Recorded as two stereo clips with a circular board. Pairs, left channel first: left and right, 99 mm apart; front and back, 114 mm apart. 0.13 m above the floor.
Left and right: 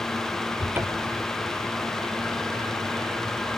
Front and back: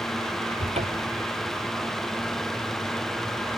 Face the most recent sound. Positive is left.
turn(degrees=-160)